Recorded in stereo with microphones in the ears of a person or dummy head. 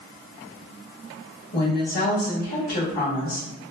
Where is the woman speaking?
50° left (ahead or behind), 1.3 m.